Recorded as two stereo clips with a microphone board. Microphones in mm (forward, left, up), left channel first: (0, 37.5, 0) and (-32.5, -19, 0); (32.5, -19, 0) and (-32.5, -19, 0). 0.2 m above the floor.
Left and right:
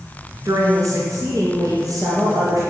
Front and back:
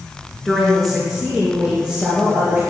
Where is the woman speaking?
95° right, 2.5 m; by 2.6 s 110° right, 4 m.